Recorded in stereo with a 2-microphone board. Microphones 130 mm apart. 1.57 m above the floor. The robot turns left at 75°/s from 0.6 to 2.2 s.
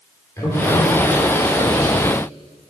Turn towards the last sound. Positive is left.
turn(degrees=-95)